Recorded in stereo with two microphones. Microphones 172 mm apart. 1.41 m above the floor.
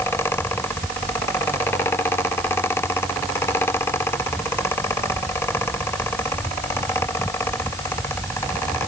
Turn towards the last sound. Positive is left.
No sound to turn to.